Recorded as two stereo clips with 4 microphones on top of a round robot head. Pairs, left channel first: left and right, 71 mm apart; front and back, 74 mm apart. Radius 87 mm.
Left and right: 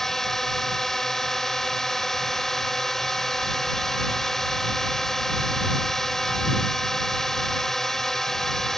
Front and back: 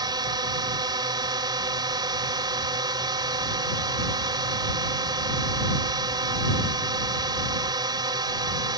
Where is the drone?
175° left.